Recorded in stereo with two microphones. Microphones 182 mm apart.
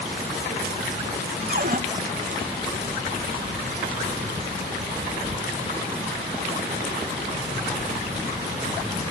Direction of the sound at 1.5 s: 50° right (ahead or behind).